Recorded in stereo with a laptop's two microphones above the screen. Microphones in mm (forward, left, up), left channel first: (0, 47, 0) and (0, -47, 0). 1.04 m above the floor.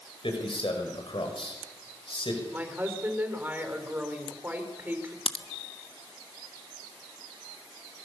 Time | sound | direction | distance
0.2 | a man speaking | 70° left (ahead or behind) | 6 m
2.5 | a woman speaking | 20° right (ahead or behind) | 4 m
5.3 | a crack | 75° left (ahead or behind) | 1.3 m